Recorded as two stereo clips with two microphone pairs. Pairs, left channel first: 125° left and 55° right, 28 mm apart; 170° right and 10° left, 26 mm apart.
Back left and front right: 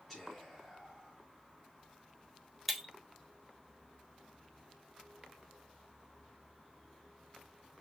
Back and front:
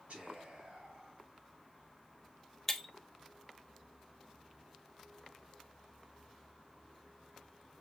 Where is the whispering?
50° left, 4 m.